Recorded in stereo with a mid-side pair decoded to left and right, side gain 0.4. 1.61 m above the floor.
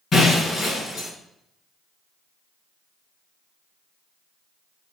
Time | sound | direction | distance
0.1 | breaking glass | 55° left | 6 m